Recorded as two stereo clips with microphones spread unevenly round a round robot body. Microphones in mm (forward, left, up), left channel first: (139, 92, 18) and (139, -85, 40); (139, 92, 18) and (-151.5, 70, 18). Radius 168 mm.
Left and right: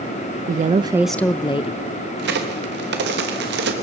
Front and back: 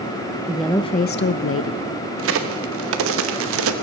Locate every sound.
0.5 s a woman speaking: 95° right, 0.6 m; by 1.9 s 45° left, 1.0 m
2.2 s a crack: 130° right, 0.9 m